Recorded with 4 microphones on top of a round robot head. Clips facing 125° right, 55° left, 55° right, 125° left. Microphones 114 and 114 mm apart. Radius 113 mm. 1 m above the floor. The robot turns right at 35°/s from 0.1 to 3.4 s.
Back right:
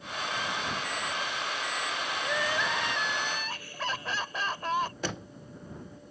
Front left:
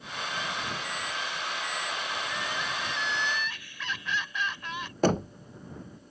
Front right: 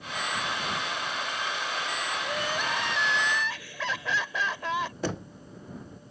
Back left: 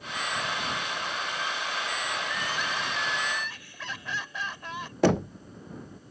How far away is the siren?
I don't hear a siren.